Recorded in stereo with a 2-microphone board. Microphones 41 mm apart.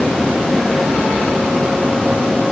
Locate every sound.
Only background noise.